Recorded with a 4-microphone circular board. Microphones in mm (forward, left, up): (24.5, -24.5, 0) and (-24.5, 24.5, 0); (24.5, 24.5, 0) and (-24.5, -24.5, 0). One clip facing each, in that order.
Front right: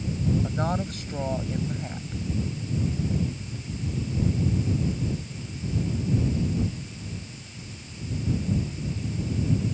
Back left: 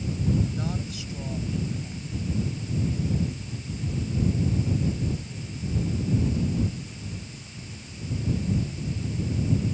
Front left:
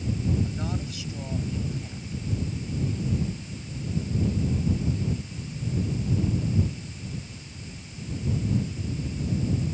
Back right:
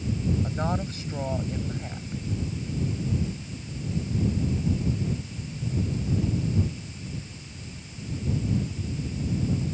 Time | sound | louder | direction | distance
0.4 | a woman speaking | front right 4 dB, back right 4 dB | 85° right | ?